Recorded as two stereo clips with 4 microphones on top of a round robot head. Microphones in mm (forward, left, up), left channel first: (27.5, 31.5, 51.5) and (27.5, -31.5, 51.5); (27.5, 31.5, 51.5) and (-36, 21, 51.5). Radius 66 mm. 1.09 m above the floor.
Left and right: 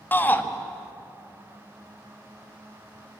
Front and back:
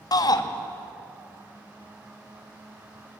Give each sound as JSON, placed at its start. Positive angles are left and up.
{"t": 0.1, "sound": "a shout", "azimuth_deg": 30, "distance_m": 1.9}